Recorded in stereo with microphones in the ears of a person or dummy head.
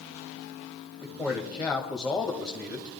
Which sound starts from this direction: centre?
A man speaking, at 1.0 s.